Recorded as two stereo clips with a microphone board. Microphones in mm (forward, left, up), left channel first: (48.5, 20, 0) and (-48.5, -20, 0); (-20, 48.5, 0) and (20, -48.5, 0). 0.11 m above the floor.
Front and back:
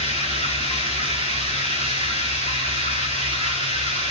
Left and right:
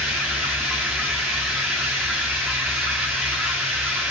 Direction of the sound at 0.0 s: 25° left.